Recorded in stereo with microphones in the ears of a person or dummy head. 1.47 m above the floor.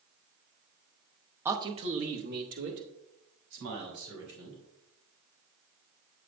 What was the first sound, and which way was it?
A man speaking, 10° right (ahead or behind).